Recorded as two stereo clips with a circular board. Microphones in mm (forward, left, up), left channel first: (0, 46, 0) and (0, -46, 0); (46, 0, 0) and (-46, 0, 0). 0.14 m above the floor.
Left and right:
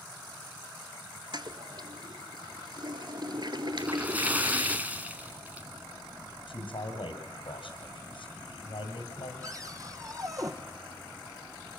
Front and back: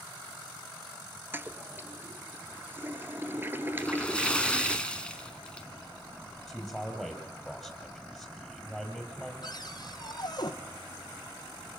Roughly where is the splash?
Ahead right.